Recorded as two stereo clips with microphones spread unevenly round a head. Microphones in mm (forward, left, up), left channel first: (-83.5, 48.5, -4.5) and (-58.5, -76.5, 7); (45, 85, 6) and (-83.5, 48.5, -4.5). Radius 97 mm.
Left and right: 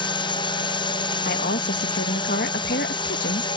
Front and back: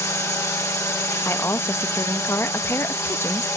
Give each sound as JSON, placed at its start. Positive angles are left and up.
{"t": 0.0, "sound": "a drone", "azimuth_deg": 80}
{"t": 1.2, "sound": "a woman speaking", "azimuth_deg": 90}